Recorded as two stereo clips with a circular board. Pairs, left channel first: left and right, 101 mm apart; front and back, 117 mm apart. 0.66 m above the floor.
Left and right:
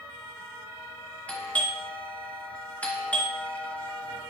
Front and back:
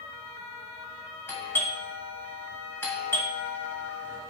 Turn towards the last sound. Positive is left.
turn(degrees=35)